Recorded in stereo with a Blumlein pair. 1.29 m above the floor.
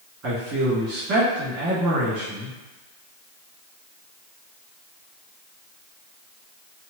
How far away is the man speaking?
About 1.8 m.